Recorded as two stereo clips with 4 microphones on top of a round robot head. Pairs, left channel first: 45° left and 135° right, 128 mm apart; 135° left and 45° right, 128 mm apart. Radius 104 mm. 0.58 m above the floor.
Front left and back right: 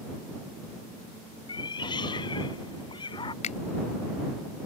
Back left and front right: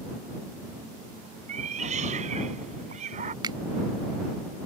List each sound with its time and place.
1.5 s a cat meowing: 10° right
3.4 s a finger snap: 10° left